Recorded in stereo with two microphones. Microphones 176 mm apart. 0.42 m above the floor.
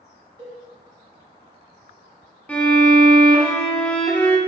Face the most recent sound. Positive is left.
turn(degrees=10)  # may be behind; listen again after turning